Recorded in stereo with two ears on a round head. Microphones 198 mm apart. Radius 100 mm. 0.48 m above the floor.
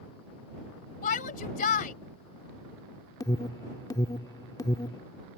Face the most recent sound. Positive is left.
turn(degrees=15)  # may be behind; listen again after turning